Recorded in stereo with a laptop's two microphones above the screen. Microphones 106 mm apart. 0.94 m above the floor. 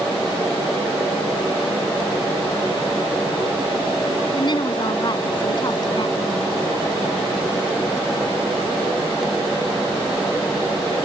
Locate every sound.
4.3 s a woman speaking: 45° left (ahead or behind)